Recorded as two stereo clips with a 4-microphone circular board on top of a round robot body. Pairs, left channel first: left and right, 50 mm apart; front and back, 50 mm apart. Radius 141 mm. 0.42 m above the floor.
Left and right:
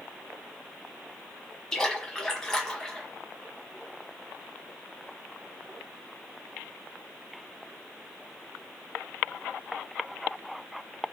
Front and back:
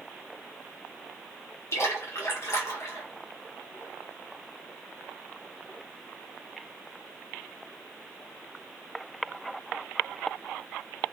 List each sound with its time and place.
1.7 s a splash: 10° left, 1.6 m